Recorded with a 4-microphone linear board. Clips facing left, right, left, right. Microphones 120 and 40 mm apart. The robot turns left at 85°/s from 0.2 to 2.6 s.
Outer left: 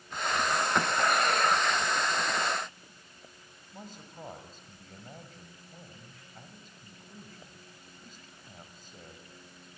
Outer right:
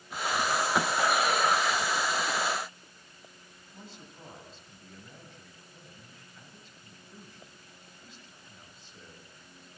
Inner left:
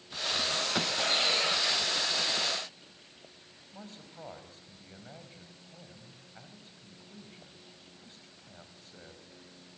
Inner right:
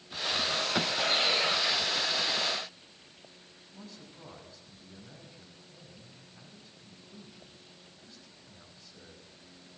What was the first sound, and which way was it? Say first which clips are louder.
A man speaking: outer left 3 dB, inner left 2 dB; 45° left (ahead or behind).